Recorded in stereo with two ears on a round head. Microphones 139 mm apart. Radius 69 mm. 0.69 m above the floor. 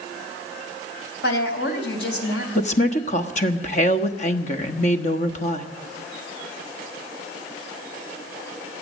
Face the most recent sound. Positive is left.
turn(degrees=45)  # may be behind; listen again after turning